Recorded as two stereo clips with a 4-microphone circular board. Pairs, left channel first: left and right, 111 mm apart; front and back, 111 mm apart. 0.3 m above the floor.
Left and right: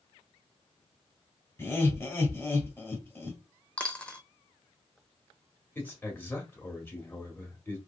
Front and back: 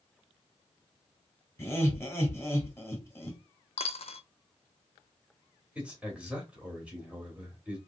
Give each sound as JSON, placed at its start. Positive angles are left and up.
{"t": 1.6, "sound": "laughter", "azimuth_deg": 45, "distance_m": 1.1}
{"t": 3.8, "sound": "a dropped coin", "azimuth_deg": 10, "distance_m": 0.6}
{"t": 5.8, "sound": "a man speaking", "azimuth_deg": 125, "distance_m": 1.3}